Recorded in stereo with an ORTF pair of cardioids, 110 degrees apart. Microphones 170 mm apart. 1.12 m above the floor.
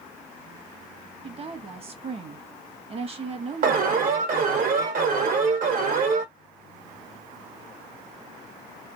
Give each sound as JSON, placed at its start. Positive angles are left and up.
{"t": 1.2, "sound": "a woman speaking", "azimuth_deg": -35, "distance_m": 1.1}
{"t": 3.6, "sound": "an alarm", "azimuth_deg": -60, "distance_m": 1.4}